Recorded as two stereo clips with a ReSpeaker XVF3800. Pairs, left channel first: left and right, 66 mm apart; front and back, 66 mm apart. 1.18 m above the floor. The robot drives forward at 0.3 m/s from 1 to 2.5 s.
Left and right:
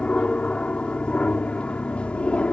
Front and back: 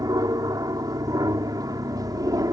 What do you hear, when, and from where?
0.0 s an aircraft: 165° left; by 2.5 s 160° left